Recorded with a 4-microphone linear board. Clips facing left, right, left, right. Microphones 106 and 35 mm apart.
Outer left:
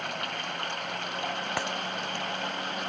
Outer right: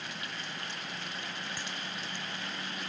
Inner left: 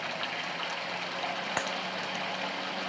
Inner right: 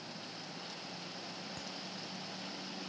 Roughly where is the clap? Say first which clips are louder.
Outer left 10 dB, inner left 15 dB; left.